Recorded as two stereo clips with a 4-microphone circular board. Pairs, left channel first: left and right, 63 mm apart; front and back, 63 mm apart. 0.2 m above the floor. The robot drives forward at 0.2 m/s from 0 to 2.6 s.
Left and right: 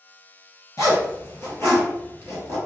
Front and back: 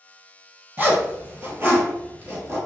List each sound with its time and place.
0.8 s a zipper: 125° left, 1.5 m; by 2.6 s 135° left, 1.7 m